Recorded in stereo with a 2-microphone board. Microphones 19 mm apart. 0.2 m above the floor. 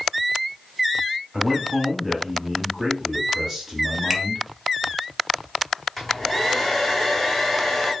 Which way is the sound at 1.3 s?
15° right (ahead or behind).